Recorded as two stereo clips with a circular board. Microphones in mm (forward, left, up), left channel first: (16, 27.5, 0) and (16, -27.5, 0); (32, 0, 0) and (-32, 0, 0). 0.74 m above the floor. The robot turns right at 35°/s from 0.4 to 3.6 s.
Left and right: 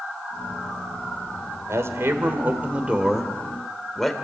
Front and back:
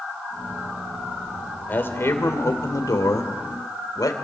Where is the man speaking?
60° right, 2.5 m; by 4.1 s 5° left, 2.5 m.